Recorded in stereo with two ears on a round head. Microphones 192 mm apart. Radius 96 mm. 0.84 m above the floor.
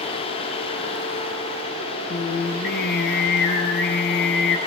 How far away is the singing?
About 3.5 m.